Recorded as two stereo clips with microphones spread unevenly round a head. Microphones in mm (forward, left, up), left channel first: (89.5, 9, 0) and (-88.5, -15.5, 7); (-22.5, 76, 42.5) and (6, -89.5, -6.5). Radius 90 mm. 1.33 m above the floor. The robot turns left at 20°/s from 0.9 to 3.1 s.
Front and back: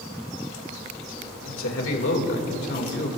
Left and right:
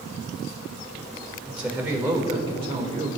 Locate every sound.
1.4 s a man speaking: straight ahead, 2.5 m; by 3.1 s 30° right, 2.5 m